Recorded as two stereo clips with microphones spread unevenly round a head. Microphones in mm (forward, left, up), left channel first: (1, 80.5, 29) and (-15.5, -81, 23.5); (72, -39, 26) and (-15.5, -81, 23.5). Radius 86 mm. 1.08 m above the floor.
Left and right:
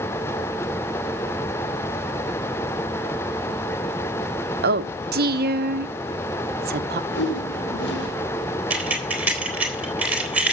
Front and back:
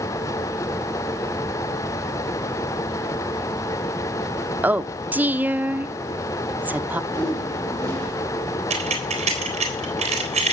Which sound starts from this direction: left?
A whoosh, at 7.1 s.